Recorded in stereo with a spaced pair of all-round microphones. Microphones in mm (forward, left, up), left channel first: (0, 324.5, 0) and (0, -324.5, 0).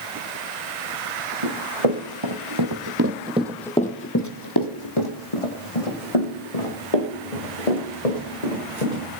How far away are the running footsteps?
About 3 m.